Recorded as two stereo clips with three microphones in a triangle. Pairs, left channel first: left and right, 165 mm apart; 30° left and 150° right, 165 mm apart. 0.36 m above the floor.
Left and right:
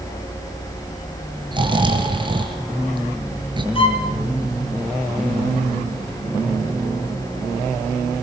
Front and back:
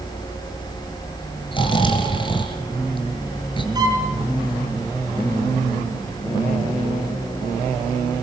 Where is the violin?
145° left, 5.5 m.